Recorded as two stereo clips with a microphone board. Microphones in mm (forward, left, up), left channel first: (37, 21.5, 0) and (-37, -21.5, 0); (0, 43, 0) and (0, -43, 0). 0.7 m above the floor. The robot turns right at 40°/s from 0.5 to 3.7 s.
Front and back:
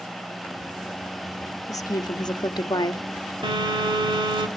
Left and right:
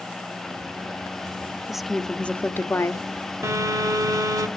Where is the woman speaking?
5° right, 0.8 m; by 3.0 s 45° left, 0.8 m.